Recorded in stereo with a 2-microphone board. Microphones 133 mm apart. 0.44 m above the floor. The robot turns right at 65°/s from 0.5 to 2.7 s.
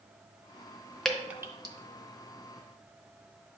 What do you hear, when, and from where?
1.1 s dripping: 5° left (ahead or behind), 0.7 m; by 1.8 s 35° right (ahead or behind), 0.7 m